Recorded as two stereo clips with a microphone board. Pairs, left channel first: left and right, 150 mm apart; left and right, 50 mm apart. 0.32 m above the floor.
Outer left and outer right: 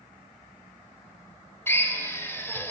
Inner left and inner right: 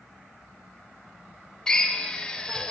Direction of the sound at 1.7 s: 15° left (ahead or behind).